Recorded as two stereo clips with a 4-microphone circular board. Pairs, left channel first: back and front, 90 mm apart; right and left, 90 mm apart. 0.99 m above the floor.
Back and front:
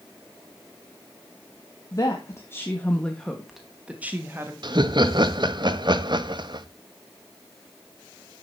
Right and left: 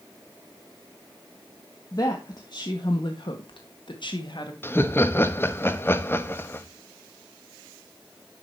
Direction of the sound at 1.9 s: 135° right.